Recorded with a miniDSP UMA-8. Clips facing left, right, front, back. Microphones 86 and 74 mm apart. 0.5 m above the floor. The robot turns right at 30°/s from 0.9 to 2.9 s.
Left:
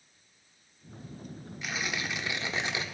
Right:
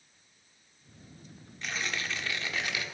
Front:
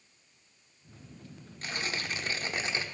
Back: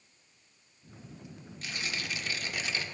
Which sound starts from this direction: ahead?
Tearing paper, at 1.6 s.